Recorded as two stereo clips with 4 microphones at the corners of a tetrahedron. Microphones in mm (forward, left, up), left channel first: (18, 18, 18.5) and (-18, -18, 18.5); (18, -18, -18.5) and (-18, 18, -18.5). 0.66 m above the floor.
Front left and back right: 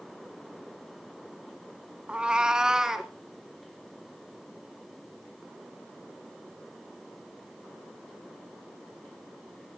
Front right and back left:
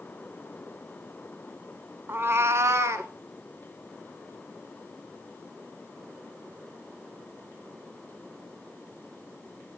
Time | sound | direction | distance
2.1 | a cat meowing | 165° left | 0.7 m